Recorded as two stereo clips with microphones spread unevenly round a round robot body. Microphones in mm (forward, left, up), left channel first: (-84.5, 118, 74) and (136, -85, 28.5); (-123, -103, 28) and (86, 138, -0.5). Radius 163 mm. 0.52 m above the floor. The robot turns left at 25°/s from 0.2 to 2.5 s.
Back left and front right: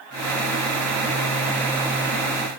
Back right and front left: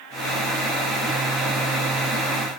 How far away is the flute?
No flute in this recording.